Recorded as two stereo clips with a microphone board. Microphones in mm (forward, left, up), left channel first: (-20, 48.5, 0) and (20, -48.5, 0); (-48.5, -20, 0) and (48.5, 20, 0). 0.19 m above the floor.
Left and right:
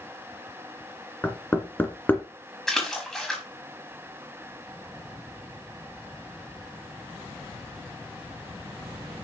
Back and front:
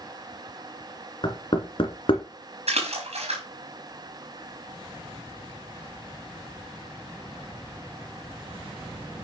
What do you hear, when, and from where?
1.2 s knocking: straight behind, 2 m
2.7 s a splash: 25° left, 5.5 m